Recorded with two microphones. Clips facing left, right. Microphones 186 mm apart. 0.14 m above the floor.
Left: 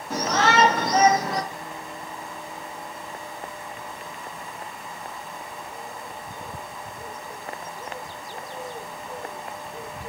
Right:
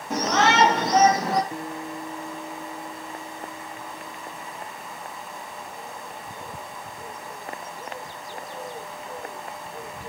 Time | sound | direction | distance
0.1 | a shout | 20° right (ahead or behind) | 4 m
1.5 | a guitar | 55° right (ahead or behind) | 0.8 m